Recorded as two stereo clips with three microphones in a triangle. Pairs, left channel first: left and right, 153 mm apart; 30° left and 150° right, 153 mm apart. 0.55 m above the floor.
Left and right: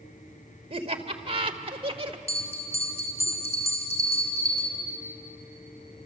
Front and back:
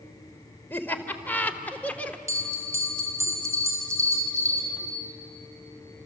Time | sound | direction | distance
0.7 | laughter | 45° right | 2 m
2.3 | a bell | 140° left | 3 m